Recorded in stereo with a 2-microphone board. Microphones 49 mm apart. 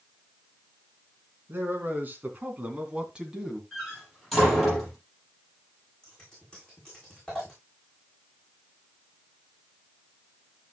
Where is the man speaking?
45° right (ahead or behind), 3.5 m; by 3.6 s 5° right (ahead or behind), 2.5 m.